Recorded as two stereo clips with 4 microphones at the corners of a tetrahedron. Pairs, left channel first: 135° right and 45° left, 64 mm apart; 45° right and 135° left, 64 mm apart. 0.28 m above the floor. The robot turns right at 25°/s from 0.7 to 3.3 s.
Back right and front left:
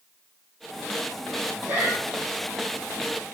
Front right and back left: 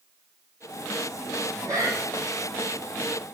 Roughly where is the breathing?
Left.